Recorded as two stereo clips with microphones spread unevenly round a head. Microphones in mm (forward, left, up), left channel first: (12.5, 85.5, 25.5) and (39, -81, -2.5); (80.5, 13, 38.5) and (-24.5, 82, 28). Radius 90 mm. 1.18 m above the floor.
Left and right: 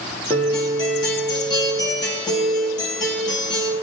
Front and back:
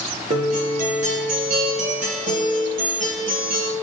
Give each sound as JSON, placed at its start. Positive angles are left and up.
{"t": 0.3, "sound": "a guitar", "azimuth_deg": 170, "distance_m": 2.5}